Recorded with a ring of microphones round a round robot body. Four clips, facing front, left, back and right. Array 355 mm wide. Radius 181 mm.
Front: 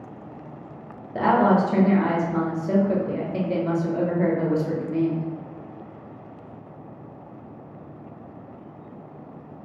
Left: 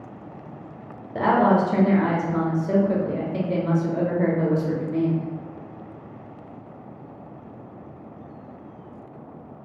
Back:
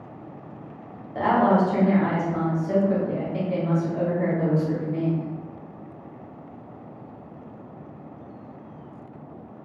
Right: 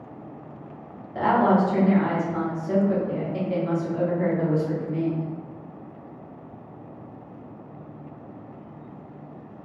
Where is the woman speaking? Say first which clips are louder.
Left 1 dB, front 1 dB; 40° left, 1.1 m.